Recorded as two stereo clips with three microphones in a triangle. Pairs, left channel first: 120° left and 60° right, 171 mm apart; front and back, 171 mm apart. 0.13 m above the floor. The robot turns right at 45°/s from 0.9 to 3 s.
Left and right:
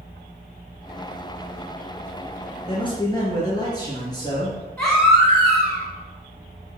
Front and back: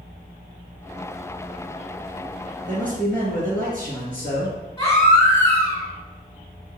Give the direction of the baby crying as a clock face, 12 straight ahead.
10 o'clock.